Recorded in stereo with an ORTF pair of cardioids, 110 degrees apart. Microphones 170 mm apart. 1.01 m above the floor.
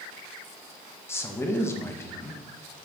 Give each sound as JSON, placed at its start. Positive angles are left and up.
{"t": 1.1, "sound": "a man speaking", "azimuth_deg": 15, "distance_m": 0.7}